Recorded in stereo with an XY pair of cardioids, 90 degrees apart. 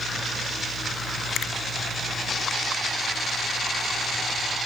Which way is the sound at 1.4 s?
70° left.